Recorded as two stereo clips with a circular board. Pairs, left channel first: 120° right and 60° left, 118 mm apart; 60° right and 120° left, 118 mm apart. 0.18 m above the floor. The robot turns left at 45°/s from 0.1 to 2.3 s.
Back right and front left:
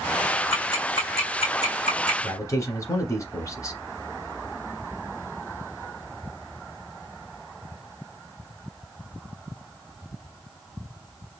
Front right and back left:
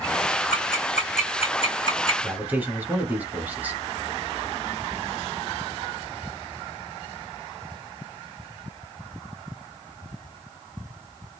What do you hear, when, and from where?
0.5 s ticking: 50° right, 3 m; by 2.1 s 125° right, 3 m
2.2 s a man speaking: 170° right, 1.3 m